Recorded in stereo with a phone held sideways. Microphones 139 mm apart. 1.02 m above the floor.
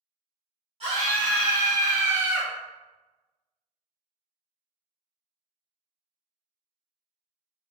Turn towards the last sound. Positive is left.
turn(degrees=-5)  # may be behind; listen again after turning